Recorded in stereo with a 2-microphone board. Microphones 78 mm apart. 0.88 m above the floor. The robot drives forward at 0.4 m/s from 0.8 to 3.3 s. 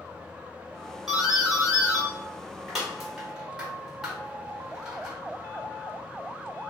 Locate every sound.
1.1 s a doorbell: 5° right (ahead or behind), 1.3 m